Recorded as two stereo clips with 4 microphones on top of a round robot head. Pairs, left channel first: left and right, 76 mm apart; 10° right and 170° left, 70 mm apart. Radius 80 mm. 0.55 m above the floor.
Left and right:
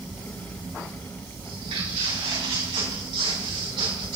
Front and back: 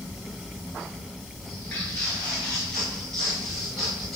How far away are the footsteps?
About 6.5 m.